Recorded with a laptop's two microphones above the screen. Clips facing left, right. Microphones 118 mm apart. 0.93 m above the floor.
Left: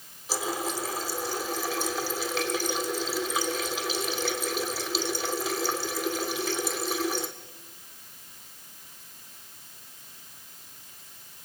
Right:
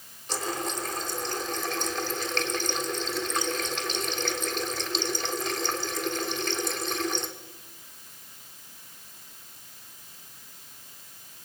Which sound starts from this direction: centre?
A running tap, at 0.3 s.